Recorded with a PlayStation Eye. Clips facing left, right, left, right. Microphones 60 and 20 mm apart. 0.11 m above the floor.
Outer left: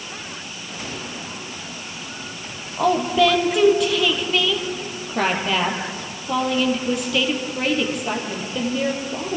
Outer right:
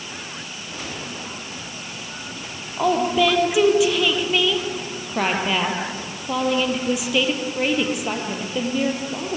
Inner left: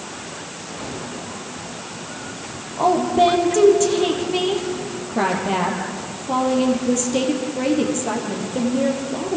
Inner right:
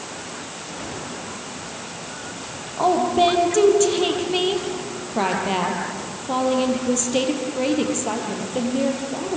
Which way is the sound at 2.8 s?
5° right (ahead or behind).